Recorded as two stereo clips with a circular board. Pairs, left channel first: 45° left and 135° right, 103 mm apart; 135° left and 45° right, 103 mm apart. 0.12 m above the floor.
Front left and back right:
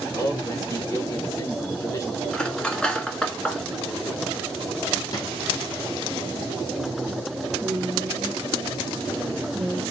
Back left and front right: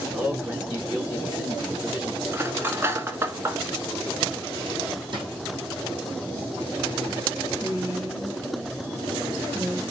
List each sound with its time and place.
0.1 s a man speaking: 20° left, 1.2 m
2.3 s cutlery clinking: 25° right, 0.8 m
5.1 s a drawer: 10° right, 1.7 m
7.6 s a woman speaking: 50° right, 1.4 m